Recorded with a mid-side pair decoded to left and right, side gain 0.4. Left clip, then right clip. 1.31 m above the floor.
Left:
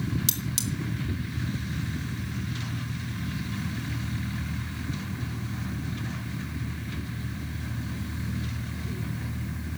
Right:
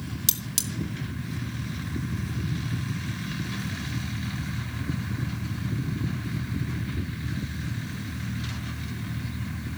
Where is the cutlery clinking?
25° right, 1.9 m.